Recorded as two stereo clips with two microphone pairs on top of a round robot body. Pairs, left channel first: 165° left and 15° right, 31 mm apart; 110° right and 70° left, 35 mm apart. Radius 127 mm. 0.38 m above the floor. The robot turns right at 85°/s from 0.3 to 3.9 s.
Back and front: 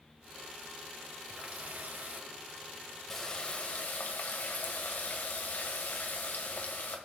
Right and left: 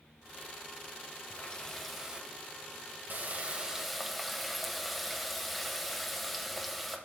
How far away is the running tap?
About 1.9 m.